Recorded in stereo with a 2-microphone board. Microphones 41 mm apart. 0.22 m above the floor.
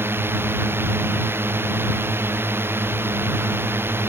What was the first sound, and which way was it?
A drone, 80° right.